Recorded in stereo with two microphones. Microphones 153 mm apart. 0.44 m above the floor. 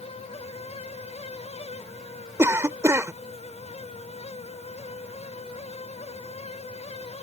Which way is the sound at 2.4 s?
20° right (ahead or behind).